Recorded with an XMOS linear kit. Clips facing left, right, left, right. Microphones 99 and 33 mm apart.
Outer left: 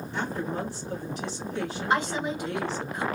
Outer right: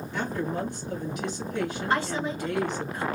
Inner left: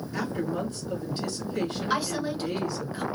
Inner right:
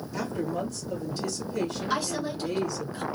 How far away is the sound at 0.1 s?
About 2 m.